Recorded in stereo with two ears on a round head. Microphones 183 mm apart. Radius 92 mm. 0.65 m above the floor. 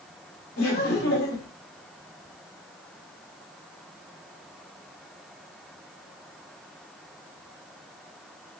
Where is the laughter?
60° left (ahead or behind), 1.4 m.